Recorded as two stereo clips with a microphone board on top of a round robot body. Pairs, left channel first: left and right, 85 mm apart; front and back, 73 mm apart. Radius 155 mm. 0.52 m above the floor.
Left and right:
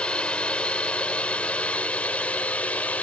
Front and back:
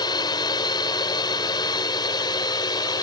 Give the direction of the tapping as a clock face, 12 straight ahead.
I don't hear tapping.